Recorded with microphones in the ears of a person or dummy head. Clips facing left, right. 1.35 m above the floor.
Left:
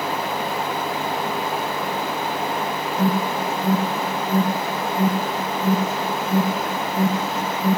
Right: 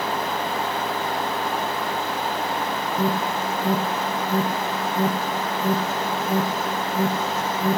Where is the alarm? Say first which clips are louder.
Left 3 dB; 70° right (ahead or behind), 4 m.